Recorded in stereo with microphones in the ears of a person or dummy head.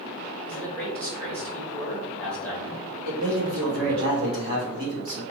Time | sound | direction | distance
0.5 | a man speaking | 10° left (ahead or behind) | 1.6 m
3.0 | a man speaking | 50° right (ahead or behind) | 1.6 m